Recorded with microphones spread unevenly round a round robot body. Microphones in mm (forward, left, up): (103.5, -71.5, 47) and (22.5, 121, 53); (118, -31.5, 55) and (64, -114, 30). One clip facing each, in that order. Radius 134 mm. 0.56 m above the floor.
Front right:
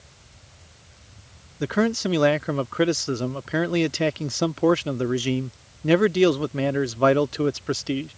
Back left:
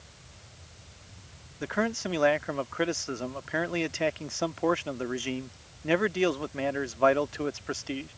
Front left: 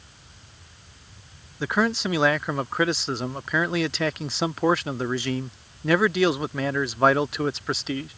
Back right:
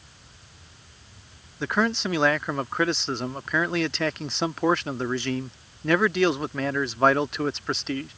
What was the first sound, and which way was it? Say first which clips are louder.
A man speaking: front right 8 dB, front left 1 dB; 40° right.